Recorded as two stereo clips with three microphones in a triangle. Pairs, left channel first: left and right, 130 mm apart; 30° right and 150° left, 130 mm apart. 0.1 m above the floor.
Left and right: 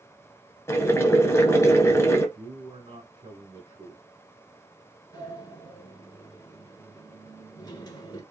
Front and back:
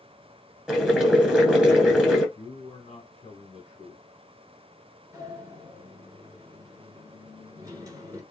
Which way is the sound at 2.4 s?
65° right.